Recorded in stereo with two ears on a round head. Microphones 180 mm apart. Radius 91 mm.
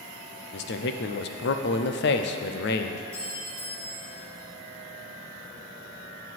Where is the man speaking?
55° left (ahead or behind), 0.6 m.